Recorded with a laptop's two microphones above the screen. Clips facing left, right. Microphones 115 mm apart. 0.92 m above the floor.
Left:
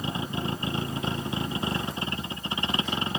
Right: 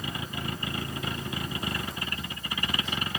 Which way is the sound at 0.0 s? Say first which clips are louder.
Left 5 dB; 25° left (ahead or behind).